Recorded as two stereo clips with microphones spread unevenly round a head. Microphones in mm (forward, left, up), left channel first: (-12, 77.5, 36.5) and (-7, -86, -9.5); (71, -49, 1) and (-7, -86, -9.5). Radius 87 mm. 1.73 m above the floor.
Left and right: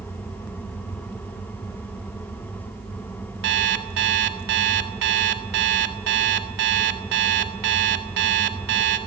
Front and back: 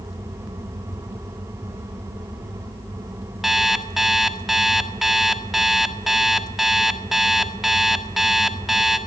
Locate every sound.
3.4 s an alarm clock: 65° right, 1.7 m